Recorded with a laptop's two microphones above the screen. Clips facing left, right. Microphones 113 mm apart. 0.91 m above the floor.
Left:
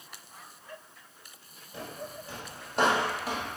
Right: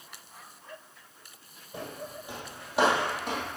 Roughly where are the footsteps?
Right.